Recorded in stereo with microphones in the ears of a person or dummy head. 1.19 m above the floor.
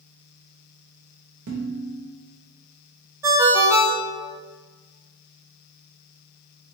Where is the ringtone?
25° right (ahead or behind), 0.5 m.